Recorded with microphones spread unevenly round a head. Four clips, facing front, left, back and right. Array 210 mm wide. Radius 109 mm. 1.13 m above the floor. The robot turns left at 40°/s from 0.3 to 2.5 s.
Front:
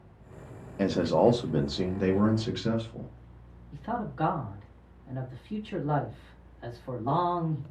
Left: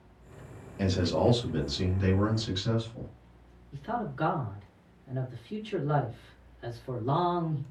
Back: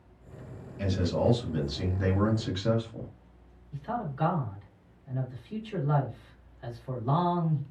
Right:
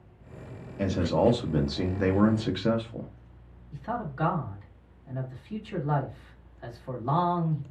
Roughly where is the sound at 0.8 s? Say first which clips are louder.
Right 2 dB, front 5 dB; ahead.